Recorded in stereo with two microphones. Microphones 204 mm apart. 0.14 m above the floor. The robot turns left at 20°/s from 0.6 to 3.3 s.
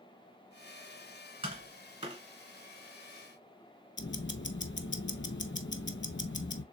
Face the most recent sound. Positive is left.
turn(degrees=65)  # may be behind; listen again after turning